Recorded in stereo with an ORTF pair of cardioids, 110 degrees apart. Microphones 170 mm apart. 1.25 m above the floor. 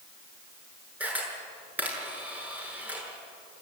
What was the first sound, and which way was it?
A camera shutter, 10° right.